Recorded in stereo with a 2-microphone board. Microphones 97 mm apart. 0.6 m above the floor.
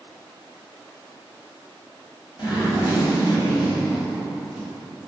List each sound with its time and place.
2.4 s a zipper: 60° left (ahead or behind), 1.7 m